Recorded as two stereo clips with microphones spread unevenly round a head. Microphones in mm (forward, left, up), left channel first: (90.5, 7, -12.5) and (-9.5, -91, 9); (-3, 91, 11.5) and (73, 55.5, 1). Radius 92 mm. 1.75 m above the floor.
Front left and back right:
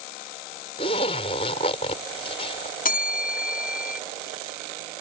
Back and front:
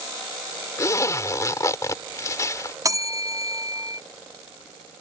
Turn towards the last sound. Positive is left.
turn(degrees=25)